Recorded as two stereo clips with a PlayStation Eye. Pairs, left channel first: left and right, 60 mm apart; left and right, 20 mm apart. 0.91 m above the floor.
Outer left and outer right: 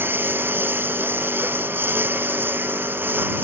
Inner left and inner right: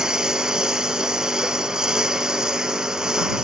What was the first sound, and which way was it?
A lawn mower, 35° right (ahead or behind).